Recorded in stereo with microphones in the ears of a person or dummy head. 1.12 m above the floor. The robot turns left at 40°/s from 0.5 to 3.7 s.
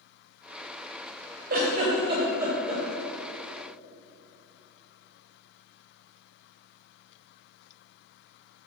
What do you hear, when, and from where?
1.5 s a giggle: 50° right (ahead or behind), 1.9 m; by 2.8 s centre (ahead or behind), 1.9 m